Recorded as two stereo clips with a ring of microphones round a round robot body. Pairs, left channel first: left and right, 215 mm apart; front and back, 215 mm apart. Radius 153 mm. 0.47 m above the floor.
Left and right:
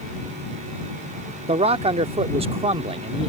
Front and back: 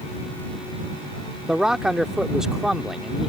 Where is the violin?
No violin in this recording.